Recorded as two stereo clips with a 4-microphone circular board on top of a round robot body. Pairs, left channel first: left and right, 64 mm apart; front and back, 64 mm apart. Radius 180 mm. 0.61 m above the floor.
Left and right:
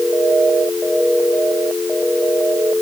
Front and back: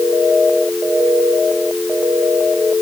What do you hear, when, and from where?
Only background noise.